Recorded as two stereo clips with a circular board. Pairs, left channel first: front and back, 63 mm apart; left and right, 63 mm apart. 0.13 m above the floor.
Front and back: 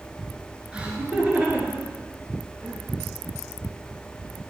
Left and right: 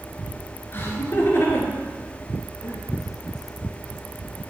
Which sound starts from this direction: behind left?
Laughter, at 0.7 s.